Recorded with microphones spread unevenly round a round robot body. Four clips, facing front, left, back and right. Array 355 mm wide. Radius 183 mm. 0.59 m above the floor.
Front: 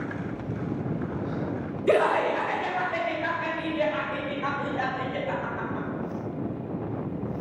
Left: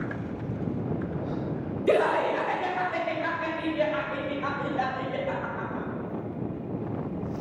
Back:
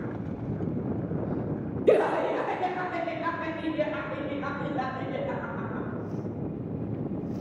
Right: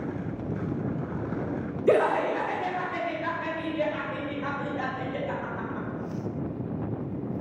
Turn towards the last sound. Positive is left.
turn(degrees=-175)